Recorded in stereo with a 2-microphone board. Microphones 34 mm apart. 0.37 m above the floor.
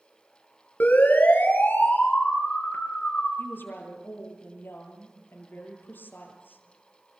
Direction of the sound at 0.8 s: 55° left (ahead or behind).